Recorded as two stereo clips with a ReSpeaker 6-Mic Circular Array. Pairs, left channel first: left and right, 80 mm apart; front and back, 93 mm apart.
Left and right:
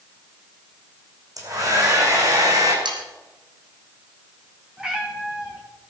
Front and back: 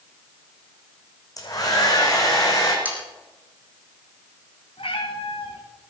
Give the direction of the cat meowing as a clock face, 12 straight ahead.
12 o'clock.